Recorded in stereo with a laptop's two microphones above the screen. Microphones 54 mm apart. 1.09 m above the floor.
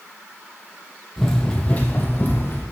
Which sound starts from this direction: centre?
Running footsteps, at 1.2 s.